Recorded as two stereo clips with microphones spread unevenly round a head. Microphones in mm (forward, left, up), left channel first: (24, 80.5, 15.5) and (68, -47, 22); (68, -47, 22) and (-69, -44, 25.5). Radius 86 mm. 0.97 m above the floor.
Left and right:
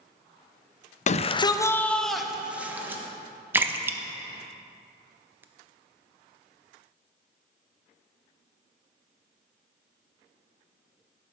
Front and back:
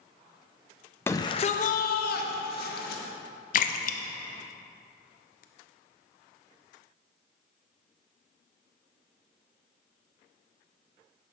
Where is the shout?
75° left, 0.5 m; by 3.0 s 5° left, 1.3 m.